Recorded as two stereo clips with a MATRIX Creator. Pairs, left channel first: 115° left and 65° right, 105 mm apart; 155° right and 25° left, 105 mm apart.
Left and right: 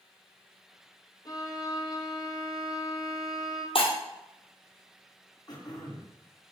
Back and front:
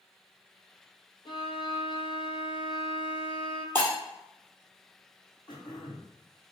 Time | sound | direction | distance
1.2 | a violin | 165° left | 0.9 m
3.8 | breaking glass | 135° left | 1.8 m
5.5 | throat clearing | 160° left | 1.8 m